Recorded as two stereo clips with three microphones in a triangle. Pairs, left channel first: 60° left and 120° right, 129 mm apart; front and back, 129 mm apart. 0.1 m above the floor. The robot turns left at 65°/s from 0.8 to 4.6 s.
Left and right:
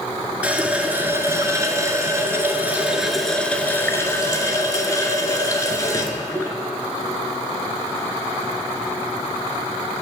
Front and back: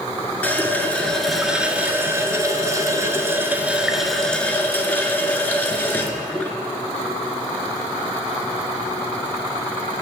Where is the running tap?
55° right, 0.8 m; by 6.5 s 55° left, 0.8 m.